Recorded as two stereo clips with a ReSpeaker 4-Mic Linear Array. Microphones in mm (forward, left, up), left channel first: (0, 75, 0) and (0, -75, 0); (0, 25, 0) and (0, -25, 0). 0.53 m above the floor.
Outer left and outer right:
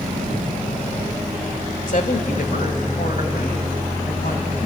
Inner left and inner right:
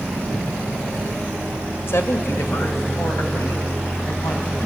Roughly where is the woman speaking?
Left.